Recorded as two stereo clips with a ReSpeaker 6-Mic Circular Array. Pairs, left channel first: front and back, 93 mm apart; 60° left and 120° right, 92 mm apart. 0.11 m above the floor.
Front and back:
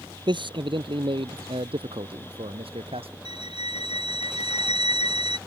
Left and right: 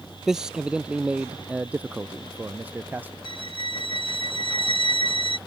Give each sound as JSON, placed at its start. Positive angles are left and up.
{"t": 0.3, "sound": "a man speaking", "azimuth_deg": 155}
{"t": 3.2, "sound": "a violin", "azimuth_deg": -140}